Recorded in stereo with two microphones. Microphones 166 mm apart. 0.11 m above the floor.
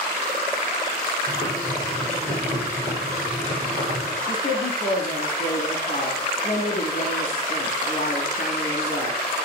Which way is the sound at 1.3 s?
50° right (ahead or behind).